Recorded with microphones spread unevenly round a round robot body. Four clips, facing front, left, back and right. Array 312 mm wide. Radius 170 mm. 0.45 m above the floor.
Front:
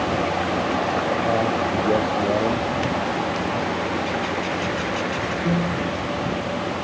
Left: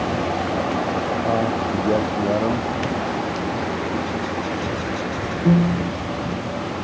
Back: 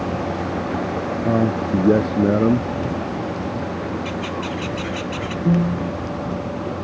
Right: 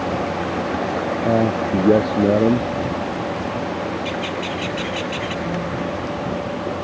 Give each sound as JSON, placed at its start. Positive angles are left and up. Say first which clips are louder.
{"t": 1.2, "sound": "a man speaking", "louder": "right 5 dB, back 1 dB", "azimuth_deg": -155}
{"t": 4.0, "sound": "a bird", "louder": "even, front 1 dB", "azimuth_deg": -150}
{"t": 5.5, "sound": "a piano", "louder": "left 5 dB, back 5 dB", "azimuth_deg": 135}